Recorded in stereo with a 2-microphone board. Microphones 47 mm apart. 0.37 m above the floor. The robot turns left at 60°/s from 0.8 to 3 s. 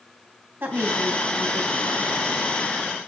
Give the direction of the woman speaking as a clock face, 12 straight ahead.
2 o'clock.